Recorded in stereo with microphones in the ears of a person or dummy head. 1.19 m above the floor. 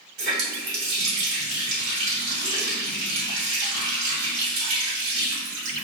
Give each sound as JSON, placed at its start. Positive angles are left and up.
{"t": 0.2, "sound": "a running tap", "side_deg": -85, "distance_m": 1.4}